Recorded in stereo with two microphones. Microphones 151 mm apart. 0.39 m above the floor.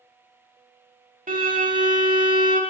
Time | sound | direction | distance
1.3 | a violin | 60° right (ahead or behind) | 0.7 m